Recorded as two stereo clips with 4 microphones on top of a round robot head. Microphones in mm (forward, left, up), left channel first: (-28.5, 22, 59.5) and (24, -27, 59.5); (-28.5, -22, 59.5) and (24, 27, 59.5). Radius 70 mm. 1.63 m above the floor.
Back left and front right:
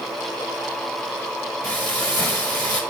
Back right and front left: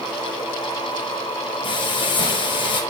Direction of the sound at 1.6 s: 150° right.